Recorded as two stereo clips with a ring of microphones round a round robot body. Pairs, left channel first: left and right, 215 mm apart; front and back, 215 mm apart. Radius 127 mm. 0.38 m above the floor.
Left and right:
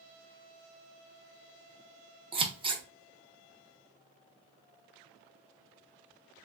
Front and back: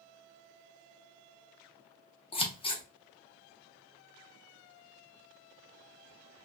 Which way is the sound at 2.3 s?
45° right.